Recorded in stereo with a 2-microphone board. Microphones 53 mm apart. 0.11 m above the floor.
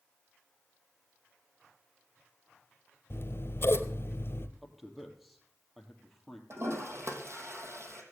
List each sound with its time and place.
3.1 s scissors: 50° left (ahead or behind), 1.2 m
4.6 s a man speaking: centre (ahead or behind), 2.5 m
6.5 s a toilet flushing: 60° right (ahead or behind), 3 m